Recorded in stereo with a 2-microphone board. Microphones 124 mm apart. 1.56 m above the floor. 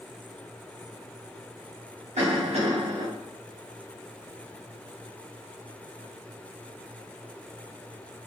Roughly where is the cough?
Right.